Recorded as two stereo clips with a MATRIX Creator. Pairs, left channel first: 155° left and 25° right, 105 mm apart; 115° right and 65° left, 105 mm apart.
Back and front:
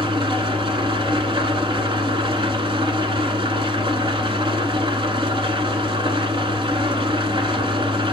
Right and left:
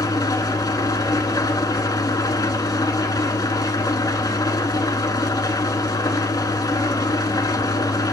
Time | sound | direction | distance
0.0 | an engine running | 60° right | 0.9 m